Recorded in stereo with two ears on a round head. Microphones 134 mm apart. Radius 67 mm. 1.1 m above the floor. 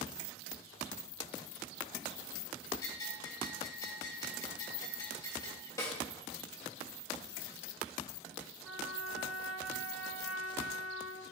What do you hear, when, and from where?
2.8 s a bell: 30° left (ahead or behind), 3.5 m
5.8 s a snare drum: 20° left (ahead or behind), 2 m
8.6 s a trumpet: centre (ahead or behind), 1.7 m